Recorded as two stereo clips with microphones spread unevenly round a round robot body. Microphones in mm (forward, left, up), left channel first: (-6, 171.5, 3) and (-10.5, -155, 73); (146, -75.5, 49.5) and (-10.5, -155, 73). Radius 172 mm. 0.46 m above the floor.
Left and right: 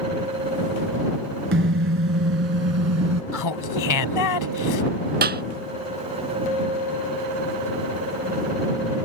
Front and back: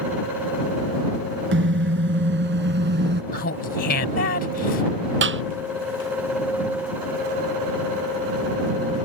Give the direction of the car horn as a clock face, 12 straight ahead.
5 o'clock.